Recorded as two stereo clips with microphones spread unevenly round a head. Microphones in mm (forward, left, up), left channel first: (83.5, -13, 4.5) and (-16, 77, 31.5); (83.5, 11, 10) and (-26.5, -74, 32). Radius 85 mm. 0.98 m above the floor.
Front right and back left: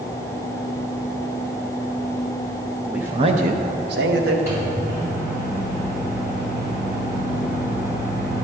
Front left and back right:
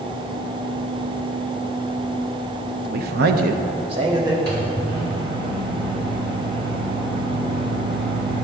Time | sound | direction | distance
2.9 | a man speaking | 130° right | 0.5 m
4.5 | a microwave | 145° right | 2 m